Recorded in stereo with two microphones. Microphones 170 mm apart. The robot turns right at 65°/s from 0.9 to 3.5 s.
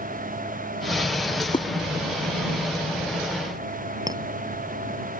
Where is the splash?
20° left (ahead or behind); by 1.7 s 35° left (ahead or behind).